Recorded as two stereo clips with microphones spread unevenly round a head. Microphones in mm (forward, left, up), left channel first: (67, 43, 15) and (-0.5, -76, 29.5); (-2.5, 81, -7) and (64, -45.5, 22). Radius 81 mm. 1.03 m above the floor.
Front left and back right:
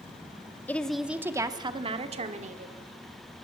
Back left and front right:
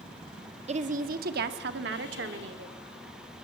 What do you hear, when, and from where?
0.7 s a woman speaking: 15° right, 1.8 m; by 2.8 s 85° right, 3 m